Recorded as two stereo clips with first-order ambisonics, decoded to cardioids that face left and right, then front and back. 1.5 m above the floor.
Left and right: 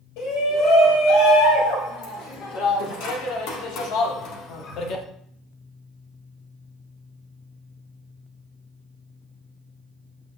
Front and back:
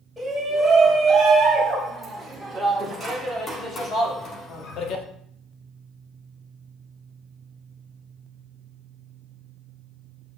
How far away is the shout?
About 3 m.